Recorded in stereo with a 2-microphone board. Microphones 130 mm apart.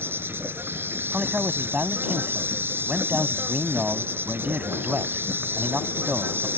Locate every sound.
0.0 s an insect: 15° right (ahead or behind)
1.1 s a man speaking: 10° right (ahead or behind)